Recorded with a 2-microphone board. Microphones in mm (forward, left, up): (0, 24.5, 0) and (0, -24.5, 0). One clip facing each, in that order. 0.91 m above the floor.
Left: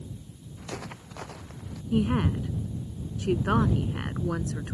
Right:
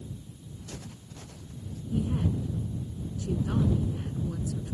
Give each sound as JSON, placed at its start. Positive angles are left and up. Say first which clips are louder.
{"t": 0.6, "sound": "footsteps", "louder": "left 8 dB", "side_deg": 85}
{"t": 1.9, "sound": "a woman speaking", "louder": "left 5 dB", "side_deg": 75}